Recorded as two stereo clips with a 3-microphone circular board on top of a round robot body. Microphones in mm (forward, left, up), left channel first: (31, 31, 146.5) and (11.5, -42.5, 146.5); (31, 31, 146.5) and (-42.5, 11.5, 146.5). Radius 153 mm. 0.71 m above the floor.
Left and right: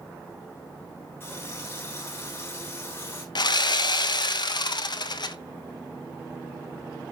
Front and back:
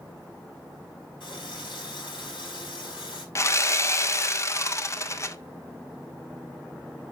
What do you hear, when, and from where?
1.2 s a running tap: 20° left, 6 m
3.4 s sawing: 65° left, 1.1 m